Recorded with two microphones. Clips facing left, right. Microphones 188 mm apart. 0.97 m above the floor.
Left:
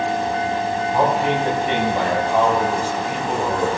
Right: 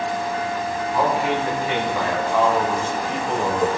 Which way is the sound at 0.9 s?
35° left (ahead or behind).